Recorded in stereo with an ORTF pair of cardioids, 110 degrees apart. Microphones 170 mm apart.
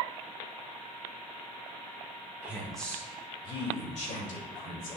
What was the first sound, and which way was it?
A woman speaking, 10° right.